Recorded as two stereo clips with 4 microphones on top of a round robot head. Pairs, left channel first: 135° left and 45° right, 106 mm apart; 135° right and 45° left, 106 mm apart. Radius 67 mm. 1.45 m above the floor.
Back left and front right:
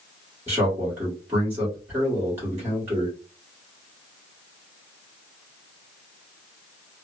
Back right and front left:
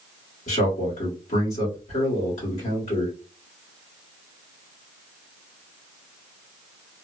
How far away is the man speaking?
About 1.5 m.